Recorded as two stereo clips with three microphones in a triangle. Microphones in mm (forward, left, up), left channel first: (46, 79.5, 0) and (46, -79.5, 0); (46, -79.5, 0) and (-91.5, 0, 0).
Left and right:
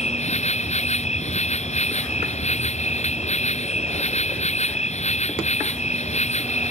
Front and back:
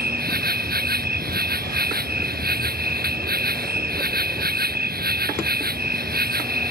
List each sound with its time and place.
0.0 s an insect: 135° left